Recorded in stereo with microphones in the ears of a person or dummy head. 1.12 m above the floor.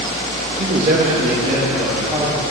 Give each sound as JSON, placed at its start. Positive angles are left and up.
{"t": 0.6, "sound": "a man speaking", "side_deg": -55, "distance_m": 1.1}